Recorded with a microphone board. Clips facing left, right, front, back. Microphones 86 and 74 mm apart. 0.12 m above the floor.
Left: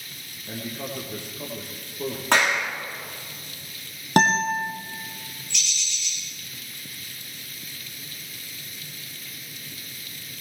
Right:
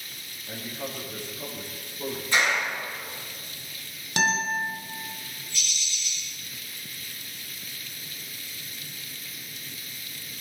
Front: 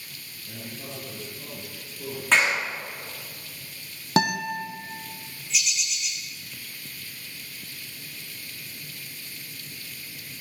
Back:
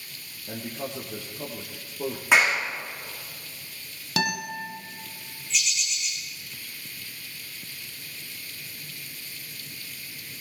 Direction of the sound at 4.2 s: 55° left.